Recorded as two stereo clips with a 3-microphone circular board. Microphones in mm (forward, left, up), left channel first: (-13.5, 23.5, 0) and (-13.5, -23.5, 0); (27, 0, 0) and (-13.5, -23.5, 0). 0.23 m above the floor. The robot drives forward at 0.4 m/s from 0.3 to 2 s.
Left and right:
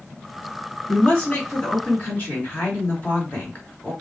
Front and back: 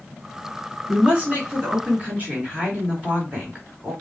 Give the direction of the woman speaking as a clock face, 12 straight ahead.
7 o'clock.